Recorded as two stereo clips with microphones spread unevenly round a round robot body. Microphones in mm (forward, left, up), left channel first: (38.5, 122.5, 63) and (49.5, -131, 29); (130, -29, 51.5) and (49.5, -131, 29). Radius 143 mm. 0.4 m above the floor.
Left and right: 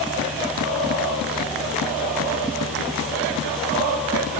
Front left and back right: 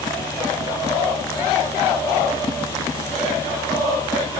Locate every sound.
Only background noise.